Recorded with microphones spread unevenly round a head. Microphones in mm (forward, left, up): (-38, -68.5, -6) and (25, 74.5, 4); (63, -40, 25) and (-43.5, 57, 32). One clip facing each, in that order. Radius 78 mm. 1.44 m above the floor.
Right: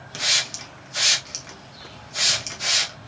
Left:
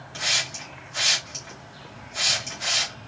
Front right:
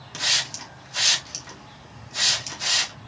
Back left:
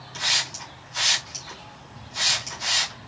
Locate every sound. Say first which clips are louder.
0.1 s a hiss: even, even; 75° right, 2.0 m